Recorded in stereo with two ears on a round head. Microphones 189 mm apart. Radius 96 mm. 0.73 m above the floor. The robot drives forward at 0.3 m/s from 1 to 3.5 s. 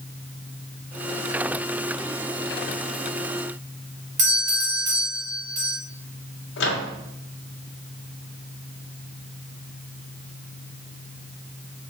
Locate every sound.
4.2 s a doorbell: 35° right (ahead or behind), 2 m
6.6 s a microwave: 55° left (ahead or behind), 1.4 m